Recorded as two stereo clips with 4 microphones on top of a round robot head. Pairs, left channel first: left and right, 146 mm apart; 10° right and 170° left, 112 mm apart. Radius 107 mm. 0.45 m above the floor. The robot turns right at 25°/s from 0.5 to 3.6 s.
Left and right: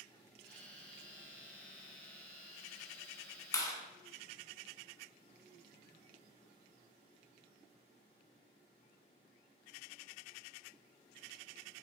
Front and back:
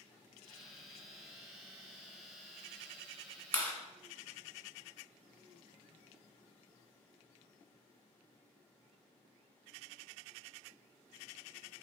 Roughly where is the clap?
Ahead left.